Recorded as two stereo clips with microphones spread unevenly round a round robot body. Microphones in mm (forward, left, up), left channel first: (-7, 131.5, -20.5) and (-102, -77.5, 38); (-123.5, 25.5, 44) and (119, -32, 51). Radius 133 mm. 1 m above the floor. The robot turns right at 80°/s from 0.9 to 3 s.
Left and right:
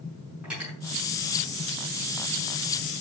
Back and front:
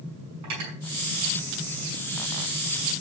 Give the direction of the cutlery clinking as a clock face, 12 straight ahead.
1 o'clock.